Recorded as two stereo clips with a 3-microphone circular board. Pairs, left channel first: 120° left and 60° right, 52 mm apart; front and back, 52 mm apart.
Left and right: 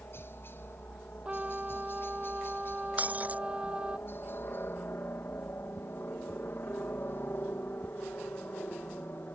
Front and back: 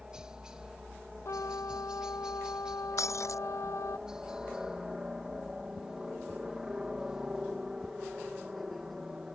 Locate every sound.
0.0 s a helicopter: 105° left
1.2 s a trumpet: 10° left
3.0 s breaking glass: straight ahead